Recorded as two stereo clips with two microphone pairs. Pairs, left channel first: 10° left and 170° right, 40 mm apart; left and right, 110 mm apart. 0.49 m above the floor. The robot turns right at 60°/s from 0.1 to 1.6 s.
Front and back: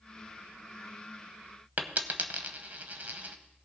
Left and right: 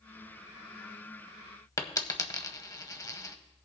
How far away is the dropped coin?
About 0.8 m.